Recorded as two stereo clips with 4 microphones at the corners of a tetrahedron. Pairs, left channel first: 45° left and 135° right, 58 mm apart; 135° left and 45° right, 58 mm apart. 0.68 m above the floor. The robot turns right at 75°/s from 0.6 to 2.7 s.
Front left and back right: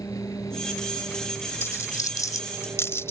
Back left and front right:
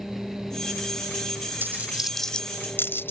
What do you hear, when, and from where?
0.0 s an engine running: 45° left; by 3.1 s 160° right
1.6 s a dropped coin: 5° left; by 3.1 s 85° left